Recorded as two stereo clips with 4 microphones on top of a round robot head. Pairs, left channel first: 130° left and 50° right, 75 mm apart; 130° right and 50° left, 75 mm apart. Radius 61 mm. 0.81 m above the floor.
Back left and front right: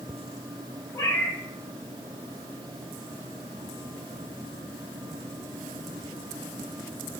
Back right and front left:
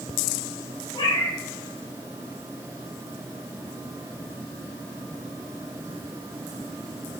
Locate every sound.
0.9 s a cat meowing: 170° right, 3 m